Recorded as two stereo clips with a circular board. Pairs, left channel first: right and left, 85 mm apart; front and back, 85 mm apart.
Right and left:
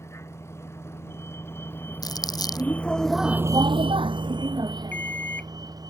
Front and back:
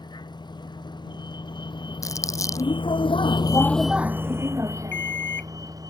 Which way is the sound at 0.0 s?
30° right.